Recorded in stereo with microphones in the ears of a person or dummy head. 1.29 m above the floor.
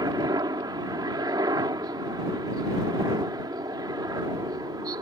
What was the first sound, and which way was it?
A helicopter, 15° right (ahead or behind).